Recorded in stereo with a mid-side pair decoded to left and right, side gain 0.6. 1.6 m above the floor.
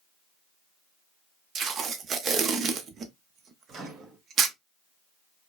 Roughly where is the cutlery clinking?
No cutlery clinking in this recording.